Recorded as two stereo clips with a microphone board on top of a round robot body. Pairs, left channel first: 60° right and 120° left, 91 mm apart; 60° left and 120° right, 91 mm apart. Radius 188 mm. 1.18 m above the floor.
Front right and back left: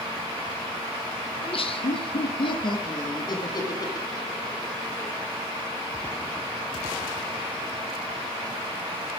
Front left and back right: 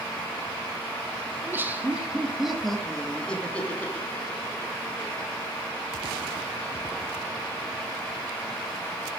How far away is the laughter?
About 2.5 m.